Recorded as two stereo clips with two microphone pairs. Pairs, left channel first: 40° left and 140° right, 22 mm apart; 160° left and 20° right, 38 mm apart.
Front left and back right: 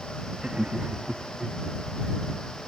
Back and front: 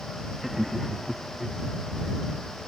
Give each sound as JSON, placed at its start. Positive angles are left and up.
{"t": 0.4, "sound": "laughter", "azimuth_deg": -105}